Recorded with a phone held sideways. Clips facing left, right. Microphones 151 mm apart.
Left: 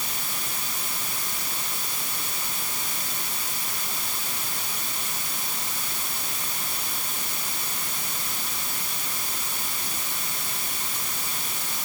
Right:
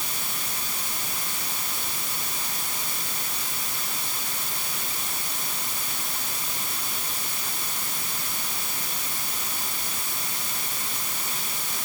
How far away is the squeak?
No squeak in this recording.